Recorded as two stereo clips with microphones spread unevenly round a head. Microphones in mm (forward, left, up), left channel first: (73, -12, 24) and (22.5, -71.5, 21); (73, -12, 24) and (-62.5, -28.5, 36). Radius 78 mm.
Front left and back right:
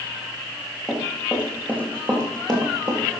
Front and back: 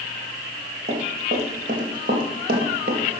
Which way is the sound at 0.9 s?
140° left.